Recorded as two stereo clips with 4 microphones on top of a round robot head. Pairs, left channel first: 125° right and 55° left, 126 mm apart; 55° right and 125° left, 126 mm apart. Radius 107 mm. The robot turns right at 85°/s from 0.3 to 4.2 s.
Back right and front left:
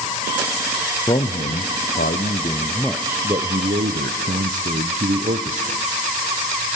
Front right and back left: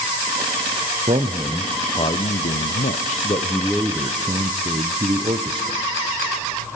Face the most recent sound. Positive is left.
turn(degrees=75)